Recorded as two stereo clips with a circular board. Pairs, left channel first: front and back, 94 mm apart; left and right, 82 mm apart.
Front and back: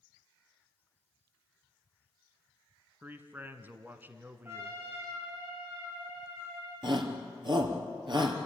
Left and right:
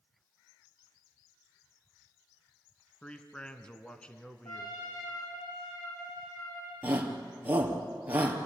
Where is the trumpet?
120° left, 7 m.